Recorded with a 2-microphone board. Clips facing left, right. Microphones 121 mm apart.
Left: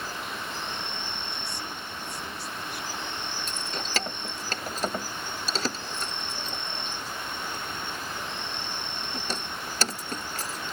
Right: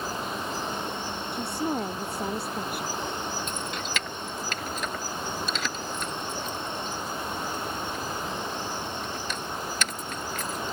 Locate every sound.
0.0 s an insect: 40° right (ahead or behind)
1.3 s a woman speaking: 60° right (ahead or behind)
3.5 s keys jangling: 35° left (ahead or behind)